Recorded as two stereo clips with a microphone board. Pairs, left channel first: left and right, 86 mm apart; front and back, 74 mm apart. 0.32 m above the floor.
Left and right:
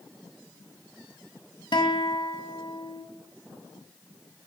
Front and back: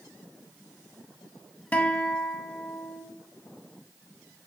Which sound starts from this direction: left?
A guitar, at 1.7 s.